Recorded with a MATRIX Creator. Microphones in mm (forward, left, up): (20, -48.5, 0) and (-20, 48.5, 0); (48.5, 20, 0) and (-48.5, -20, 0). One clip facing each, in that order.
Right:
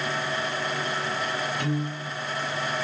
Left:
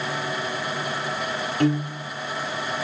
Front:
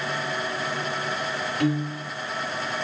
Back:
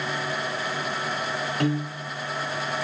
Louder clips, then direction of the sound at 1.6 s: Left 6 dB, front 3 dB; 155° left.